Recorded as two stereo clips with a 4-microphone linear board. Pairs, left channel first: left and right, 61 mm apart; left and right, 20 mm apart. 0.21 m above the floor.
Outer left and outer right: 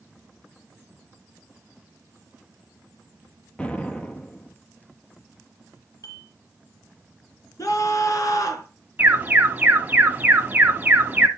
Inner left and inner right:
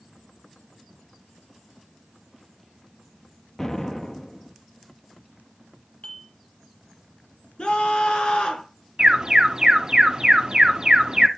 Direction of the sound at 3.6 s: 20° left (ahead or behind).